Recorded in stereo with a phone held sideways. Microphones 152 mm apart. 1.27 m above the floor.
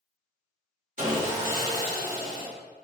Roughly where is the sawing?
Right.